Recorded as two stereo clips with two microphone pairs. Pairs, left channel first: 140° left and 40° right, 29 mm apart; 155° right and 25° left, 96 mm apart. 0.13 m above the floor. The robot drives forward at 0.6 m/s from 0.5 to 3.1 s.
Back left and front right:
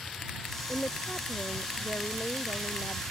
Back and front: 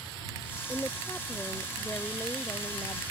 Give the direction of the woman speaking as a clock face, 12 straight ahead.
7 o'clock.